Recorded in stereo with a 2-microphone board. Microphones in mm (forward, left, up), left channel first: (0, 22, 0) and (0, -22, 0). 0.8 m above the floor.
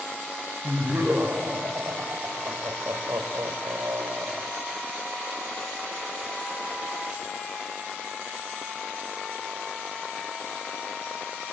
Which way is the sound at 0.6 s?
40° right (ahead or behind).